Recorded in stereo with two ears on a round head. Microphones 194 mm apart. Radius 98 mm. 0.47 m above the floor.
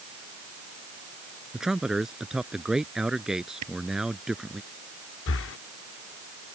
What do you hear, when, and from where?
1.5 s a man speaking: 5° right (ahead or behind)
3.6 s a camera shutter: 85° right
5.3 s breathing: 60° left (ahead or behind)